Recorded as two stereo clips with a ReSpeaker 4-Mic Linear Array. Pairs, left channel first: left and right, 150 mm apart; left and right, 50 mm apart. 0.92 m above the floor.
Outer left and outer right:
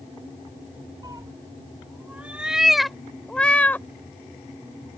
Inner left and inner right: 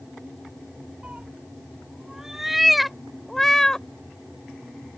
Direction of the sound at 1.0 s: 30° right (ahead or behind).